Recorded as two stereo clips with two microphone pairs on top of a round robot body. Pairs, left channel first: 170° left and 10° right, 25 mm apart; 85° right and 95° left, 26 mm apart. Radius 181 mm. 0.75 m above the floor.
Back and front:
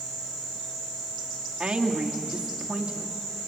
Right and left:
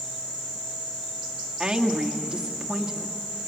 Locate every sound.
1.6 s a woman speaking: 30° left, 2.5 m